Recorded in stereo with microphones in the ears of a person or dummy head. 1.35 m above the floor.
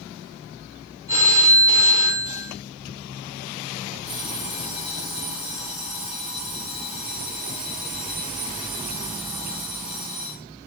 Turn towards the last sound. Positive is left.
turn(degrees=-5)  # may be behind; listen again after turning